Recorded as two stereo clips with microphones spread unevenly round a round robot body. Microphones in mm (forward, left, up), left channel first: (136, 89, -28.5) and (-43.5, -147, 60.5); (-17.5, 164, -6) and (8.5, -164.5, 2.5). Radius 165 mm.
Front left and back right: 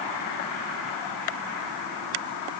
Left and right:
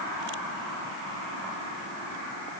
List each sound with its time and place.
Only background noise.